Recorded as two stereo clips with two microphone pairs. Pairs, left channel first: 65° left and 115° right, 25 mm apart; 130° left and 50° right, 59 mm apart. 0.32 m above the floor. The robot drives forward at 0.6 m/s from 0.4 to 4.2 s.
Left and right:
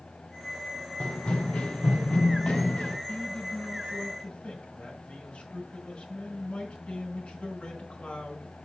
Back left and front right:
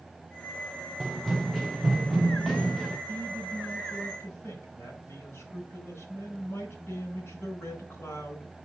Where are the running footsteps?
40° left, 1.3 m.